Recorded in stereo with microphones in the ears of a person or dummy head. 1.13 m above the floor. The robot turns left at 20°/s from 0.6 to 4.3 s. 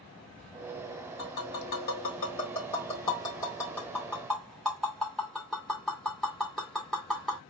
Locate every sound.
1.2 s tapping: 60° left (ahead or behind), 2.5 m; by 7.4 s centre (ahead or behind), 2.5 m